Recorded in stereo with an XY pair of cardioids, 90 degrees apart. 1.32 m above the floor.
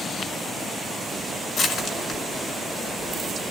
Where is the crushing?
65° left, 5 m.